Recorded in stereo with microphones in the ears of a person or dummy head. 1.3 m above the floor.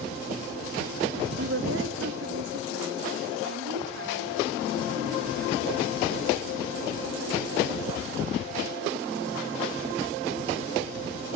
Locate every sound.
1.4 s a woman speaking: 65° right (ahead or behind), 1.8 m; by 5.8 s 70° right (ahead or behind), 5.5 m